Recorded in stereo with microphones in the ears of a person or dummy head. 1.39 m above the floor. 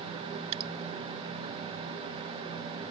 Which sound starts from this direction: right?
Dripping, at 0.5 s.